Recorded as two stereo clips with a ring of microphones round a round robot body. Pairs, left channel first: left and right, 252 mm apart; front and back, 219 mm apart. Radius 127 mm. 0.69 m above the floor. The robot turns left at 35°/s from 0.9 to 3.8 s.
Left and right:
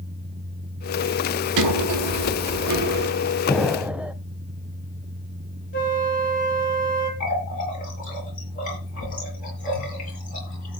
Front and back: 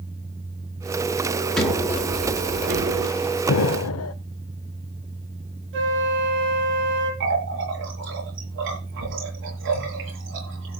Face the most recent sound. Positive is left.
turn(degrees=150)